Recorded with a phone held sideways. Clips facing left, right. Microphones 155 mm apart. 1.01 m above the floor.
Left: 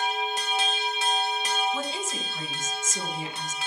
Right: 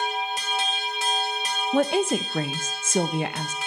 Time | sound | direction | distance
1.7 | a woman speaking | 65° right (ahead or behind) | 0.6 m